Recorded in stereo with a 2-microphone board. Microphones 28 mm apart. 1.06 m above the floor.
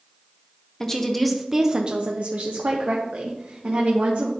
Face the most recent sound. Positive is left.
turn(degrees=-60)  # may be behind; listen again after turning